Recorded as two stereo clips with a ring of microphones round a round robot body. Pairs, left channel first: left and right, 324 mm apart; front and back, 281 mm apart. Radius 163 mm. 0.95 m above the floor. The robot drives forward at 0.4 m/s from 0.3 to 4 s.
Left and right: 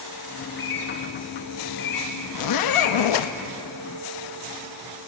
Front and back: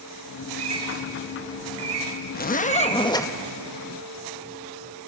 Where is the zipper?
60° left, 1.0 m; by 3.3 s 80° left, 0.9 m.